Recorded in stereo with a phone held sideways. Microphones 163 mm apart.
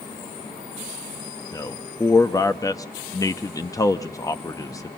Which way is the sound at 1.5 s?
20° left (ahead or behind).